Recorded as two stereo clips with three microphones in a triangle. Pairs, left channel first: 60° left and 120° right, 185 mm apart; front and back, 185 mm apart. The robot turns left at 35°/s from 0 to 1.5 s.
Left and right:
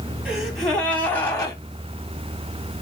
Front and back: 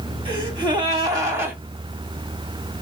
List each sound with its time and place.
0.2 s a gasp: 160° left, 1.6 m; by 1.6 s 115° left, 1.6 m